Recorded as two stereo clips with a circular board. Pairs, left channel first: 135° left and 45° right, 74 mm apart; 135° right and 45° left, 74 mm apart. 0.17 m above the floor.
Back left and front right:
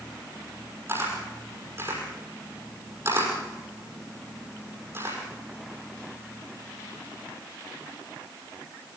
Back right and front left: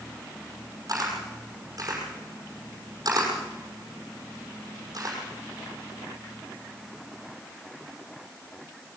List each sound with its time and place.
0.9 s a camera shutter: 10° left, 6 m